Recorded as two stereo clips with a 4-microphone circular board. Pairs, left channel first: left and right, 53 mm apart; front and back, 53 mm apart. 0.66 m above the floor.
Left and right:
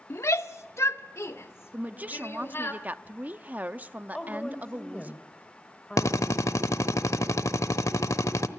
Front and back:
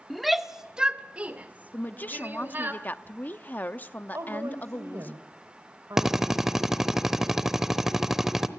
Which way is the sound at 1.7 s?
40° right.